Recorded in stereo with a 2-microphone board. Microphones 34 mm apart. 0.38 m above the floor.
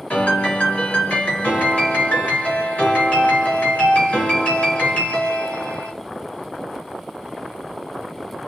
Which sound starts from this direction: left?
A piano, at 0.1 s.